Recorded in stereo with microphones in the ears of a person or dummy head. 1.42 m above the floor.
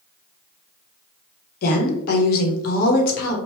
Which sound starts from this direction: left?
A woman speaking, at 1.6 s.